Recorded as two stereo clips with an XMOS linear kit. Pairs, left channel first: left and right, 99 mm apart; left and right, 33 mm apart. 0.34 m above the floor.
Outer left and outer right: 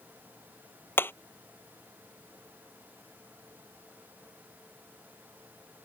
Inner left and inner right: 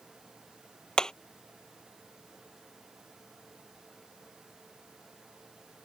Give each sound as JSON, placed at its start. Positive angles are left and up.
{"t": 1.0, "sound": "hammering", "side_deg": 20}